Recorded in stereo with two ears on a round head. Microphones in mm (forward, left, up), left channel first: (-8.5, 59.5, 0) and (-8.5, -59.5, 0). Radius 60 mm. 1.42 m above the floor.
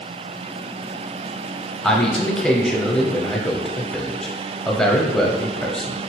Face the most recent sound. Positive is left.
turn(degrees=5)  # may be behind; listen again after turning